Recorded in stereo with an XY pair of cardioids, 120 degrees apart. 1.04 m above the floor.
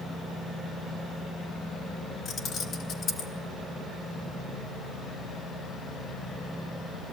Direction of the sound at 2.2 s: 60° left.